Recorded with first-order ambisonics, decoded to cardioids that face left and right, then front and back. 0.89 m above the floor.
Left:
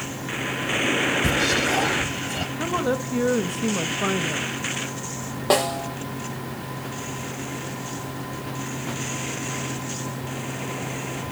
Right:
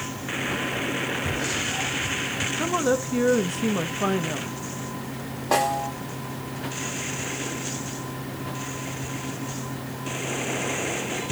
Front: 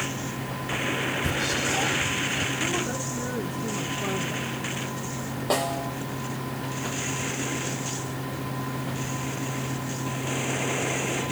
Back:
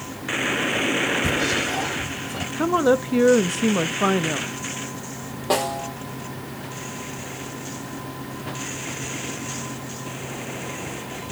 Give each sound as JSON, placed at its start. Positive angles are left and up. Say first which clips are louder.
{"t": 1.2, "sound": "whispering", "louder": "left 6 dB, back 4 dB", "azimuth_deg": 100, "distance_m": 0.9}
{"t": 2.6, "sound": "a woman speaking", "louder": "right 1 dB, back 9 dB", "azimuth_deg": 180, "distance_m": 0.6}
{"t": 5.5, "sound": "a snare drum", "louder": "left 1 dB, back 3 dB", "azimuth_deg": 95, "distance_m": 7.5}